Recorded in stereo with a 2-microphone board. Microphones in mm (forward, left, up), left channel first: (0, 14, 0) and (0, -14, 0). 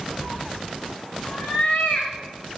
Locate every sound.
0.2 s a cat meowing: 65° left (ahead or behind), 3 m; by 2.1 s 50° left (ahead or behind), 5 m